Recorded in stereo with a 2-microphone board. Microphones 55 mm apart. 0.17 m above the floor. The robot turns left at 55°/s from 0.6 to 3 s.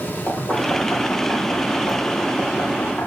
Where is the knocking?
25° left (ahead or behind), 6.5 m; by 3.1 s 20° left (ahead or behind), 6.5 m.